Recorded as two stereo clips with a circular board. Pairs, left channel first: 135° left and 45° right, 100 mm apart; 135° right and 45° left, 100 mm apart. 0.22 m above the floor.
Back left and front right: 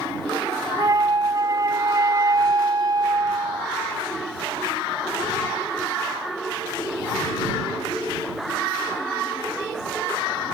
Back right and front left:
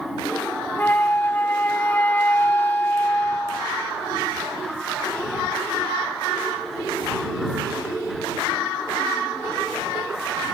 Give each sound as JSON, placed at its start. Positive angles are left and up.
{"t": 0.8, "sound": "a flute", "azimuth_deg": -75}